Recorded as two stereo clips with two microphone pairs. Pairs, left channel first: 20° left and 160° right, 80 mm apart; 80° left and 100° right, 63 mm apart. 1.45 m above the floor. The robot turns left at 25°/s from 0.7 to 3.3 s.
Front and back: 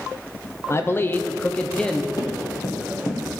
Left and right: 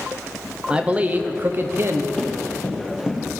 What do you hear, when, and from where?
0.7 s a man speaking: 25° right, 0.7 m; by 2.1 s 60° right, 0.7 m
2.2 s running footsteps: 10° left, 2.5 m; by 3.2 s 30° right, 2 m